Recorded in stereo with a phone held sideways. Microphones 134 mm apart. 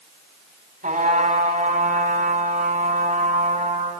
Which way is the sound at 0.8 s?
70° right (ahead or behind).